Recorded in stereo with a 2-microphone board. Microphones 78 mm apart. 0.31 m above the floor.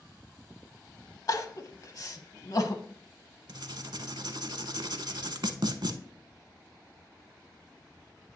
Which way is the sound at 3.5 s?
70° right (ahead or behind).